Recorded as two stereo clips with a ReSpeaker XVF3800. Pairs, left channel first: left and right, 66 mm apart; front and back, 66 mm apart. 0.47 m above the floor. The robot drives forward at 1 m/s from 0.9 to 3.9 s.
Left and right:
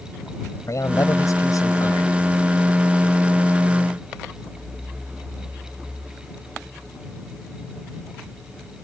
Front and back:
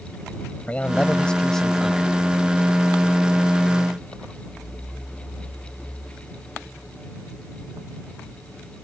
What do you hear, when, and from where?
0.7 s a man speaking: 70° left; by 2.2 s 95° left